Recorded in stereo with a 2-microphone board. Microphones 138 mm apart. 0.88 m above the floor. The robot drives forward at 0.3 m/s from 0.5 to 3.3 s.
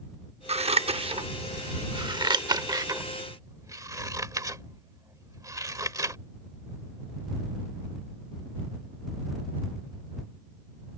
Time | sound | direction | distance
0.5 | scissors | 50° right (ahead or behind) | ?